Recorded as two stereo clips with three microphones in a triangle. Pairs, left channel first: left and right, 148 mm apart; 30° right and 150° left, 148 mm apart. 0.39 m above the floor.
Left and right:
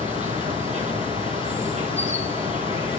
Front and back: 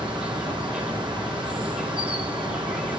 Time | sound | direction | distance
0.0 | an insect | 125° right | 3.5 m